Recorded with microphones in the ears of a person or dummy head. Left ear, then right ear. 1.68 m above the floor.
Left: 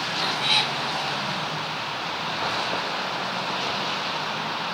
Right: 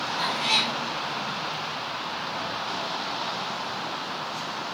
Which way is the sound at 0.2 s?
25° right (ahead or behind).